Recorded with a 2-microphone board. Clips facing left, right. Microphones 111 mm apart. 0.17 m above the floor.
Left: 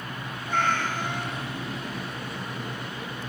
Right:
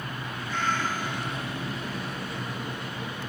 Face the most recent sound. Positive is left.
turn(degrees=55)  # may be behind; listen again after turning